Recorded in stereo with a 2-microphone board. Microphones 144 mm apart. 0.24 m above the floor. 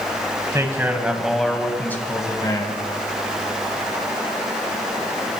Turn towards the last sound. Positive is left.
turn(degrees=35)  # may be behind; listen again after turning